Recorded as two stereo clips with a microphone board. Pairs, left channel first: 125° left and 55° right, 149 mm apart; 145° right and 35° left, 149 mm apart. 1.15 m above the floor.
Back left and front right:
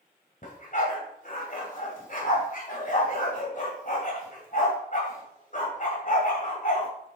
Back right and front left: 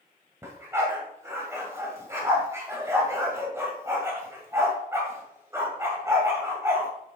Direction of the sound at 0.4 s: 105° left.